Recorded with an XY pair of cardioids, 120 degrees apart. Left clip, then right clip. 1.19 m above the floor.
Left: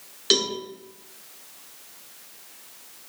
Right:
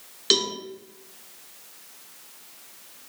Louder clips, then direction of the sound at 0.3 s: Even; 10° right.